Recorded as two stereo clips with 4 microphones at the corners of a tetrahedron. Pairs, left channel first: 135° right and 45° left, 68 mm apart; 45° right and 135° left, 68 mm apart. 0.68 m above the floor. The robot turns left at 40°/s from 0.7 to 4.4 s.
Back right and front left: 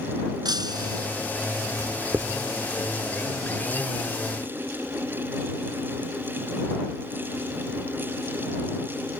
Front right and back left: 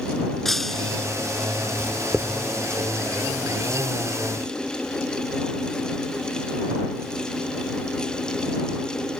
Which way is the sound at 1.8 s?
90° left.